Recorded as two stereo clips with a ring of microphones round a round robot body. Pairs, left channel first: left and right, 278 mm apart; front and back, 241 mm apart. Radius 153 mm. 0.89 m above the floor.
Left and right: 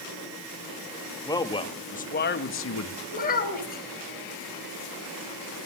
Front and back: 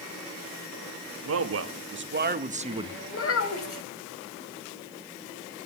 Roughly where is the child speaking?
Ahead left.